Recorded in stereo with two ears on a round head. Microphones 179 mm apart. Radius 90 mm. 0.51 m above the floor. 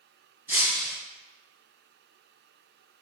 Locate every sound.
0.5 s breaking glass: 10° right (ahead or behind), 2.5 m